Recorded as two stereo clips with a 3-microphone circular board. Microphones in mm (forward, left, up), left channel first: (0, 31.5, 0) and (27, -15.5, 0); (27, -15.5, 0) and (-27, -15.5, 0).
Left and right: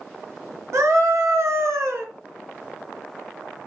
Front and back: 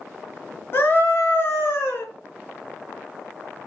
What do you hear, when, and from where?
0.7 s a scream: 45° right, 4 m; by 2.1 s 35° right, 3 m